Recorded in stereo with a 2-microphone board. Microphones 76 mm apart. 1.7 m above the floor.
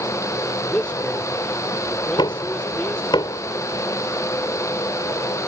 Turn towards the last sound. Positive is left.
turn(degrees=75)  # may be behind; listen again after turning